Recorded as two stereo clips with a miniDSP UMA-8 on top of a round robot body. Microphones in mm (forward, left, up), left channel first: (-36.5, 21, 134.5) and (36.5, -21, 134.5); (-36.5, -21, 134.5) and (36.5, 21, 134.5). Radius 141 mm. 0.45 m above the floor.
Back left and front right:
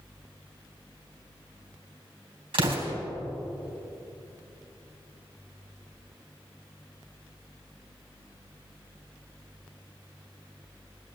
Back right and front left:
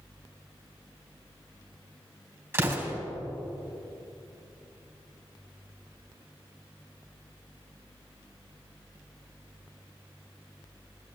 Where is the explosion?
30° right, 3.5 m.